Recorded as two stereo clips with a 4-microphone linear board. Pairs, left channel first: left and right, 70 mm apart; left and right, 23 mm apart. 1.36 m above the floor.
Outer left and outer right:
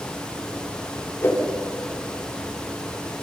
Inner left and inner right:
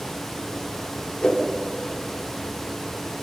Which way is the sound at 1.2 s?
35° left (ahead or behind).